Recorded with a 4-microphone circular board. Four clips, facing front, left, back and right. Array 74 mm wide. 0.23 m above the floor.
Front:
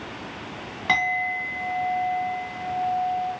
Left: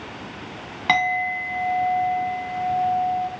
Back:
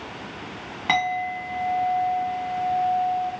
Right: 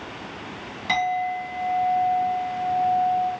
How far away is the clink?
About 1.2 m.